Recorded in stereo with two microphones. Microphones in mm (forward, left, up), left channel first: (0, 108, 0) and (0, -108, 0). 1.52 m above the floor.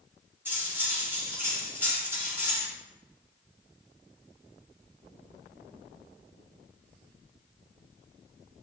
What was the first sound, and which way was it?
Cutlery clinking, 10° right (ahead or behind).